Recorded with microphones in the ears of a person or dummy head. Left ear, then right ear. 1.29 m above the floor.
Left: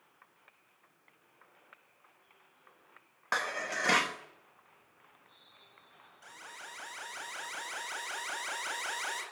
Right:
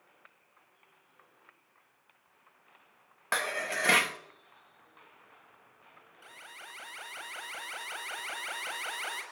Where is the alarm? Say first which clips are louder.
Even; 10° right (ahead or behind), 7 m.